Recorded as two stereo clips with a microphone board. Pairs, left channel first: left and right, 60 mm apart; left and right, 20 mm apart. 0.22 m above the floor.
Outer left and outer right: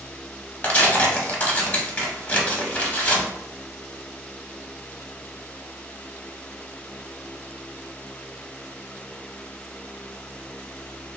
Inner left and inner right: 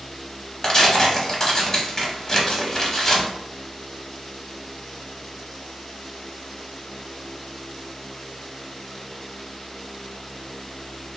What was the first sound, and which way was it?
Tearing paper, 25° left (ahead or behind).